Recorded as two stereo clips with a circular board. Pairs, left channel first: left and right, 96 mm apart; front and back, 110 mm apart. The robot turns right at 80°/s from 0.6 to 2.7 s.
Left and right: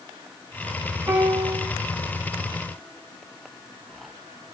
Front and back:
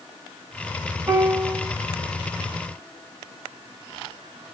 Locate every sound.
1.1 s a piano: 135° right, 1.2 m; by 1.7 s 85° right, 1.2 m